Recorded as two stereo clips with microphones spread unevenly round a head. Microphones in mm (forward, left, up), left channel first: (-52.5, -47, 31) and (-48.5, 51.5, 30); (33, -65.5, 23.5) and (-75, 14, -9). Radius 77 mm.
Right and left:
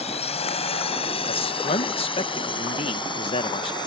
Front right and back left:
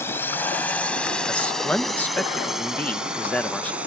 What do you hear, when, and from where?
0.0 s a drone: 110° right; by 3.9 s 135° right
1.3 s a man speaking: 120° right